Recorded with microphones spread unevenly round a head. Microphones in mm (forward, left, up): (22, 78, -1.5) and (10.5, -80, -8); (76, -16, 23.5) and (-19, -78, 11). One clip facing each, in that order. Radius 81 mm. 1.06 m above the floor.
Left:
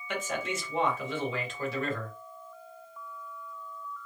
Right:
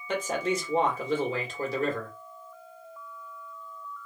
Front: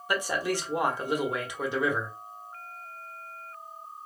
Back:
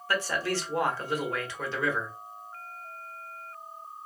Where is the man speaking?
45° right, 1.3 m.